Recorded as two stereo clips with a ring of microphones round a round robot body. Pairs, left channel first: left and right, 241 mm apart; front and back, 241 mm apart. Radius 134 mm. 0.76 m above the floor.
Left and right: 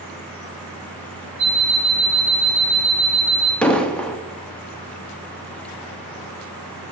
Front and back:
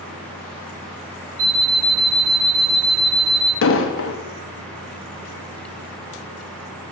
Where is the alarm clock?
175° right, 1.9 m.